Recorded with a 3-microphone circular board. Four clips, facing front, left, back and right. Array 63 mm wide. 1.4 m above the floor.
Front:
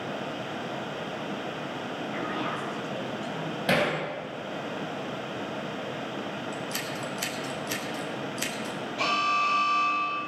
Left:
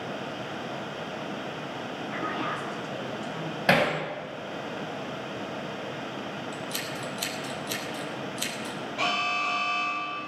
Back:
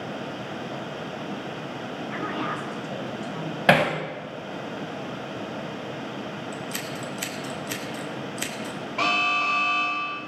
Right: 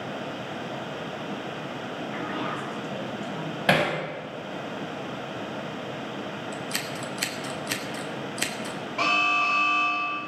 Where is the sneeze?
I don't hear a sneeze.